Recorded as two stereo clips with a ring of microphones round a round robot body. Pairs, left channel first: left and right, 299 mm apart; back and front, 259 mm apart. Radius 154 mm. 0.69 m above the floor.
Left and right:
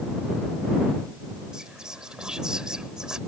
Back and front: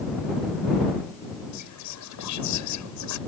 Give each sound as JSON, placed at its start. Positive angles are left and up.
{"t": 1.5, "sound": "whispering", "azimuth_deg": 180}